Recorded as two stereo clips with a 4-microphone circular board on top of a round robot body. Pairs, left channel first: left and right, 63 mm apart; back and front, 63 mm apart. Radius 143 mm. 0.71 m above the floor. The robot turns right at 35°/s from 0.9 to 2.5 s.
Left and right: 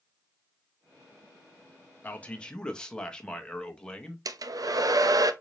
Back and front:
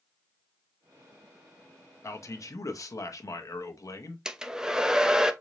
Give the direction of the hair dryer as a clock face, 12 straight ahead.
3 o'clock.